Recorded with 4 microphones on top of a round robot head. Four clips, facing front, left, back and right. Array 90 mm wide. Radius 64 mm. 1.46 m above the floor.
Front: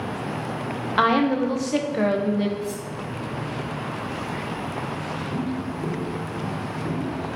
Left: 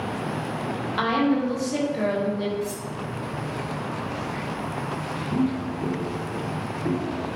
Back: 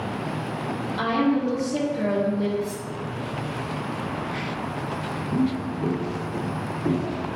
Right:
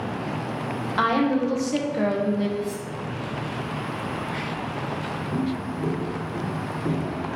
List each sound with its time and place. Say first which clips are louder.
1.0 s a woman speaking: right 1 dB, front 3 dB; 15° right, 1.2 m
2.6 s cutlery clinking: right 1 dB, front 1 dB; 95° left, 1.4 m
5.3 s footsteps: left 4 dB, back 6 dB; 130° left, 1.7 m; by 7.4 s 150° right, 1.8 m